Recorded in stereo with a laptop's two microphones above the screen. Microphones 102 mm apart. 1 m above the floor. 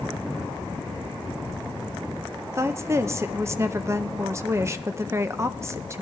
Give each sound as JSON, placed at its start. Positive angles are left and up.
{"t": 2.5, "sound": "a woman speaking", "side_deg": -30, "distance_m": 0.5}